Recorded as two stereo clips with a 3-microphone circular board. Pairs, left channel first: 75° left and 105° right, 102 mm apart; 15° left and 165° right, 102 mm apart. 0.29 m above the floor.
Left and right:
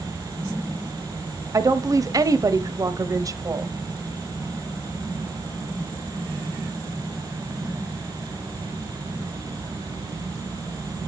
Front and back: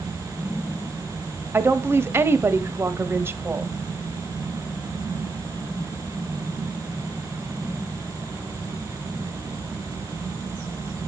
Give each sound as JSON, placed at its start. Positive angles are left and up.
{"t": 1.5, "sound": "a woman speaking", "azimuth_deg": -120, "distance_m": 1.1}